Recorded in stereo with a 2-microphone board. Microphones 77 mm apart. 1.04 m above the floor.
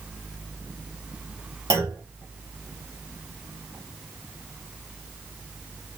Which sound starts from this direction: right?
A clunk, at 1.7 s.